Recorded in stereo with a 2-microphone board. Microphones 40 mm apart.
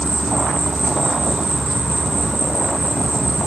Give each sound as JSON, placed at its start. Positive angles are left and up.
{"t": 0.0, "sound": "an insect", "side_deg": -15, "distance_m": 8.0}